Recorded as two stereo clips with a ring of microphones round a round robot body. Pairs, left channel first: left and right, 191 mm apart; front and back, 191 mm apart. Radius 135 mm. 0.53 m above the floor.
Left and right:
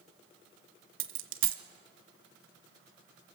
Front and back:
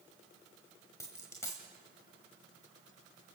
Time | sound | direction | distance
1.0 | a dropped coin | 80° right | 1.2 m